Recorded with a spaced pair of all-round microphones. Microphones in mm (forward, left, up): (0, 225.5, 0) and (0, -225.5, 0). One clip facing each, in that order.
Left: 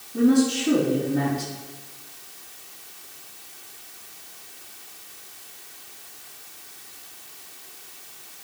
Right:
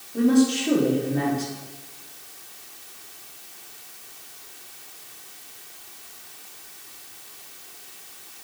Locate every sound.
0.1 s a woman speaking: 30° left (ahead or behind), 3.5 m